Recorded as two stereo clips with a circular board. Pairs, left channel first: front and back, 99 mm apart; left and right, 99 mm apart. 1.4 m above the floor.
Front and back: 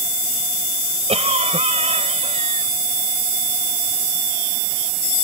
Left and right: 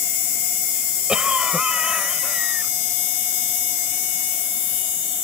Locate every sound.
1.1 s a cough: 170° right